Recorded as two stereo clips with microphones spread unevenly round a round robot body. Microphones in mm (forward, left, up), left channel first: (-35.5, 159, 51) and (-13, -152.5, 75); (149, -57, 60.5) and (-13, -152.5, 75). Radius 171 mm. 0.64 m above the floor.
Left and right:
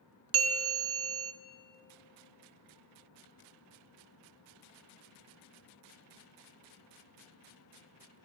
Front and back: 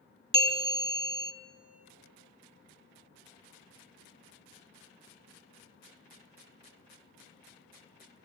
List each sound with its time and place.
0.3 s a bell: 100° right, 1.5 m